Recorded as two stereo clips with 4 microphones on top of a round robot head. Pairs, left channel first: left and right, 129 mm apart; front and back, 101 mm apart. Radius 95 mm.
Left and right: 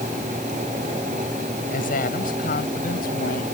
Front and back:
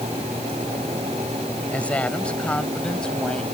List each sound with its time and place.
1.7 s a woman speaking: 80° left; by 3.4 s 85° left